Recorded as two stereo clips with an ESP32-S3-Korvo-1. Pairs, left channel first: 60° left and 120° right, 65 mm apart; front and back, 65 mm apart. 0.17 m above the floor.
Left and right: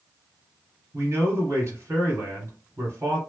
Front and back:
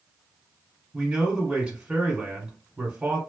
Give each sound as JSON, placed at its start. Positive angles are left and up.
{"t": 0.9, "sound": "a man speaking", "azimuth_deg": -110, "distance_m": 1.3}